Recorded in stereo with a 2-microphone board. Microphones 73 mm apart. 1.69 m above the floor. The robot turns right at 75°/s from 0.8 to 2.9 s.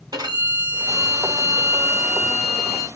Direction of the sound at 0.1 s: 110° right.